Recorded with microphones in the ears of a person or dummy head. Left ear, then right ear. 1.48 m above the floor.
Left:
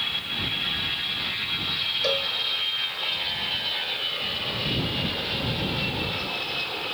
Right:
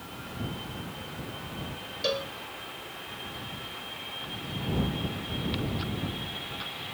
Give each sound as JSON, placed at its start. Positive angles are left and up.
{"t": 2.0, "sound": "a cowbell", "side_deg": 15}